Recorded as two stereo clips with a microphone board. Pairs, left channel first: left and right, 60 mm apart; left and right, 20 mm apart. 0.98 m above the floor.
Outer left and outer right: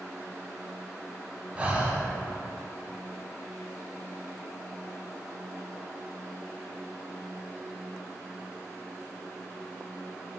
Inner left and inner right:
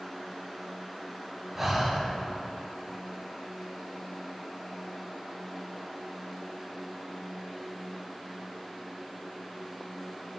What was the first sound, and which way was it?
Breathing, 20° right (ahead or behind).